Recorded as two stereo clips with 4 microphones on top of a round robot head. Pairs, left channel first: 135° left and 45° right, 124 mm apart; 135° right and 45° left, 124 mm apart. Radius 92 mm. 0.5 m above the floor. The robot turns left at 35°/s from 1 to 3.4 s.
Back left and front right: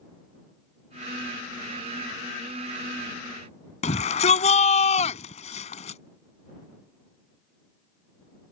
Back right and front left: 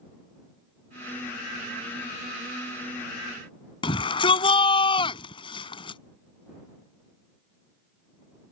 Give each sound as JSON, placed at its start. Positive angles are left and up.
{"t": 3.8, "sound": "a shout", "azimuth_deg": 175}